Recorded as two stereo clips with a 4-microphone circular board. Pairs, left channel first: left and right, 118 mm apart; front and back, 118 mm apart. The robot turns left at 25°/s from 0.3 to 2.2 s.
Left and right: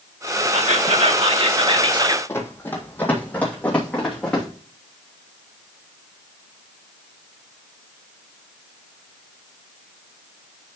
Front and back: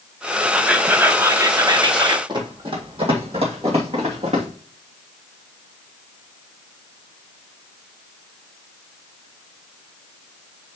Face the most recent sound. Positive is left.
turn(degrees=170)